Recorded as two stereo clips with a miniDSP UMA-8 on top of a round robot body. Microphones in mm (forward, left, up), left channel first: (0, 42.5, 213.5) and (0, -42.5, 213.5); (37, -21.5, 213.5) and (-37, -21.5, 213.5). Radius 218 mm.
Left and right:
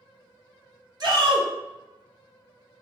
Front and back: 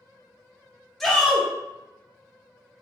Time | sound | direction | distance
1.0 | a shout | 95° right | 1.0 m